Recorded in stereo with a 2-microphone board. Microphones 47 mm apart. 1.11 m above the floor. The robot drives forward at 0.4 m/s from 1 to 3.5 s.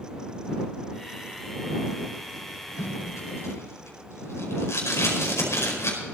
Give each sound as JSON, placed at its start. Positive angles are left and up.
{"t": 2.8, "sound": "tape being pulled", "side_deg": 85, "distance_m": 5.0}